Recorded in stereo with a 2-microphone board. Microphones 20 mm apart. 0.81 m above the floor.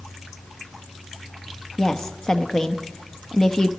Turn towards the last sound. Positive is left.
turn(degrees=30)  # may be behind; listen again after turning